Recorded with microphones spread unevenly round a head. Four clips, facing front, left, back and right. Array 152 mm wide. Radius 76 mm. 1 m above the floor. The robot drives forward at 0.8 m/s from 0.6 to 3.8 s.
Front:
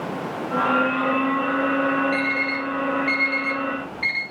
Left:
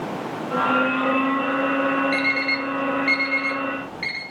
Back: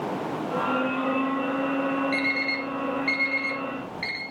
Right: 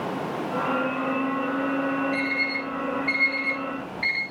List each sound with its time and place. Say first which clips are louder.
2.1 s an alarm clock: left 3 dB, front 4 dB; 110° left, 3 m; by 4.2 s 130° left, 3.5 m